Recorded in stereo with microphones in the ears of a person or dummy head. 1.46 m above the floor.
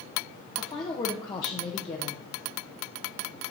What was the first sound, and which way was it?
A woman speaking, 25° left (ahead or behind).